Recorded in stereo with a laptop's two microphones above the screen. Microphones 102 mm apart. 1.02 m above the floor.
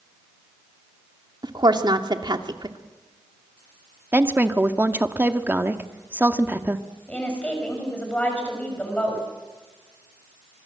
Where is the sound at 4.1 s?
20° right (ahead or behind), 1.7 m.